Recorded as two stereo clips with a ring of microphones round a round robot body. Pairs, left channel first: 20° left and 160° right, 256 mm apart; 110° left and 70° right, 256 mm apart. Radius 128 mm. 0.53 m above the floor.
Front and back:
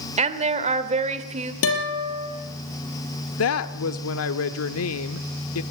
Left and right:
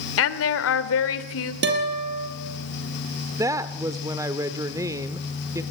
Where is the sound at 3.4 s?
10° left, 1.1 m.